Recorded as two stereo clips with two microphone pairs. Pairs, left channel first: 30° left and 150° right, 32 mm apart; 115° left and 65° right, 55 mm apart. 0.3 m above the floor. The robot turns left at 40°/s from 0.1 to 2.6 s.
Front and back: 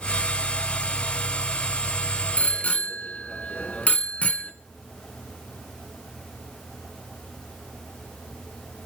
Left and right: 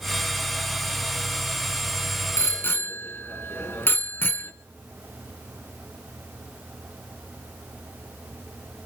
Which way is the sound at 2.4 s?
75° left.